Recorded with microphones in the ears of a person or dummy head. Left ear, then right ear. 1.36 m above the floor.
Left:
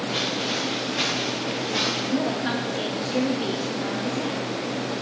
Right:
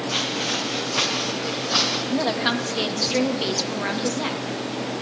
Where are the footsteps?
35° right (ahead or behind), 5 m; by 2.0 s 55° right (ahead or behind), 3 m.